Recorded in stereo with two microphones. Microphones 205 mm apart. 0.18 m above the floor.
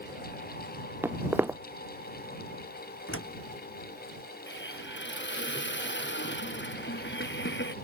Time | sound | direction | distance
1.0 | footsteps | 10° right (ahead or behind) | ?
3.1 | a door slam | 80° left | ?
4.5 | a hiss | 60° left (ahead or behind) | ?